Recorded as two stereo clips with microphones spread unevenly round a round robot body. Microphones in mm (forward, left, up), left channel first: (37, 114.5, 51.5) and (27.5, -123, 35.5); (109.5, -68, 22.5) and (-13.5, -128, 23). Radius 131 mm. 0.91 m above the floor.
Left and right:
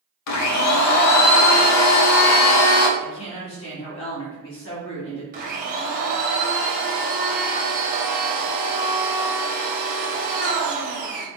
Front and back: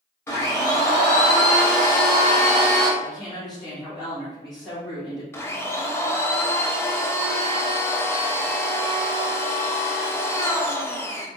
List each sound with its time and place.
0.3 s a blender: 105° left, 0.5 m
3.0 s a woman speaking: 110° left, 1.4 m
5.3 s a blender: 40° right, 0.8 m